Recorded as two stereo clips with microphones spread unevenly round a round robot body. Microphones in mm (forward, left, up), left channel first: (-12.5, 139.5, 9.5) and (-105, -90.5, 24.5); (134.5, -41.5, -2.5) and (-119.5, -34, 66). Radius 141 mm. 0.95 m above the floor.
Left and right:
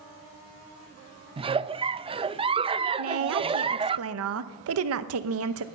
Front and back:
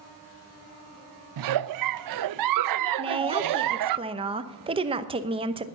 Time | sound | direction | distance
1.4 | a giggle | 175° left | 0.5 m
3.0 | a woman speaking | 105° right | 1.0 m